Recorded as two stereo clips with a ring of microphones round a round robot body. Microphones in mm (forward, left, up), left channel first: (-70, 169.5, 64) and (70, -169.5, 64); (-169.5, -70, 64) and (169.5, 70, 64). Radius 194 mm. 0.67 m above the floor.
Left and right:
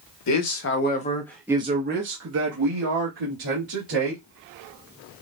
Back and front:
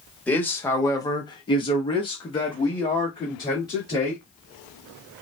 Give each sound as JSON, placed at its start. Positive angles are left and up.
{"t": 0.3, "sound": "a man speaking", "azimuth_deg": 120, "distance_m": 1.0}